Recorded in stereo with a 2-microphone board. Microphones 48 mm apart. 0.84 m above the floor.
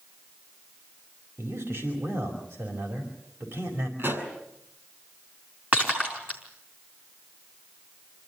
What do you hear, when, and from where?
1.4 s a man speaking: 65° right (ahead or behind), 4.5 m
4.0 s a pop: 55° right (ahead or behind), 6 m
5.7 s breaking glass: 35° right (ahead or behind), 5 m